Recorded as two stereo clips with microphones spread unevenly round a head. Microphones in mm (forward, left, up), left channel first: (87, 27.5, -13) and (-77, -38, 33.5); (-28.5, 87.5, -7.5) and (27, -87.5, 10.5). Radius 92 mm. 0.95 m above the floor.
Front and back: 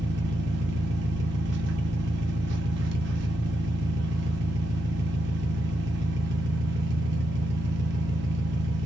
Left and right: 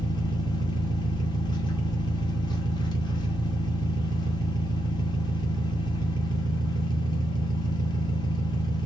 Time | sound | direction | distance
0.0 | an engine running | 175° left | 0.7 m